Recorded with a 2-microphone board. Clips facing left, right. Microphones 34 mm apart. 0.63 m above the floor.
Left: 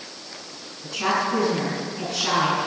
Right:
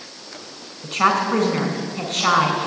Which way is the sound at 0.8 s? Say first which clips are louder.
Right 5 dB; 75° right (ahead or behind).